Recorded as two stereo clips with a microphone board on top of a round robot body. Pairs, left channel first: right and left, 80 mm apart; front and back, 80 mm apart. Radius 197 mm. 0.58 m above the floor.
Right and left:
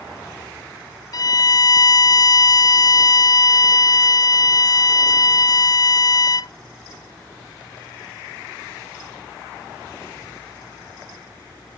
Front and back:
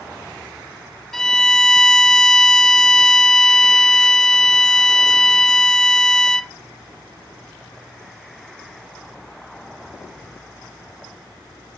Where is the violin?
85° right, 0.6 m.